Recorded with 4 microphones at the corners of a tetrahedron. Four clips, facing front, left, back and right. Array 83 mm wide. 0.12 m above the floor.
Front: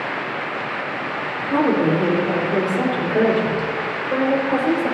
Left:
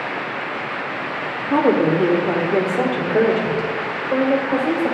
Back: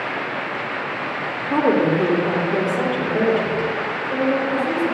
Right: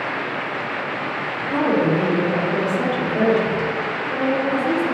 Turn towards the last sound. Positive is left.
turn(degrees=55)